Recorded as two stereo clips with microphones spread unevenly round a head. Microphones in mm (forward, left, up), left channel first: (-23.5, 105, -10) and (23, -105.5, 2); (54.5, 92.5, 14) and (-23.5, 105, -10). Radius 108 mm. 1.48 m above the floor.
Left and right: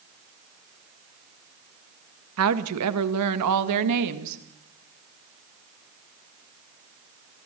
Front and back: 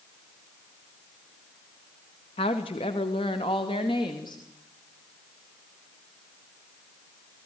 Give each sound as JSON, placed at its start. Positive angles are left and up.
{"t": 2.4, "sound": "a woman speaking", "azimuth_deg": -55, "distance_m": 2.0}